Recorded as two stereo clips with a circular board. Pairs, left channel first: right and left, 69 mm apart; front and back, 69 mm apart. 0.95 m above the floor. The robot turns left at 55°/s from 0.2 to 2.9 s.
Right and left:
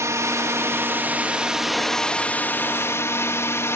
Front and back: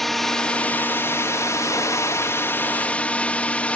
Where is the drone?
85° left; by 3.8 s 60° right.